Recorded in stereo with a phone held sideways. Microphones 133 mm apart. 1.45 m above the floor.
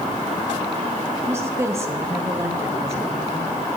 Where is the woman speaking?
20° right (ahead or behind), 3 m.